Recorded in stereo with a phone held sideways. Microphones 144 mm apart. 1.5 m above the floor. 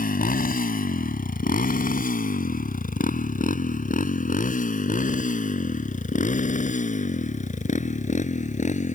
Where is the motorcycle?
80° left; by 8.9 s 55° left (ahead or behind).